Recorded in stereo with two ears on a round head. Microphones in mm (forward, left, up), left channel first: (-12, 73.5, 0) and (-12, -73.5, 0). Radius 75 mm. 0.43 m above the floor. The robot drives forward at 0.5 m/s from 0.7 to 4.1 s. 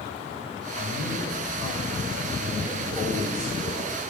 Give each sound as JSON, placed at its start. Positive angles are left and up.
{"t": 0.7, "sound": "a man speaking", "side_deg": 15, "distance_m": 2.0}